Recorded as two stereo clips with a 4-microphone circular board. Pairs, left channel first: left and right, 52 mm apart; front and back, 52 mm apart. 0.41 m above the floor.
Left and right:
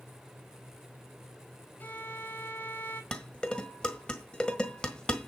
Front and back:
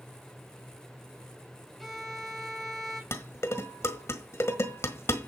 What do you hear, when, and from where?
1.8 s a violin: 90° left, 1.6 m
3.1 s dishes clattering: 15° left, 1.5 m